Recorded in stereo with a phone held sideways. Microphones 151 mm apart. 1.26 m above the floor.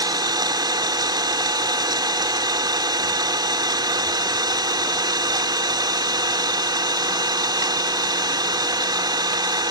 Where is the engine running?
30° right (ahead or behind).